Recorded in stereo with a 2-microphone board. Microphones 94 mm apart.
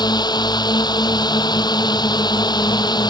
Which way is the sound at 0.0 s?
45° left (ahead or behind).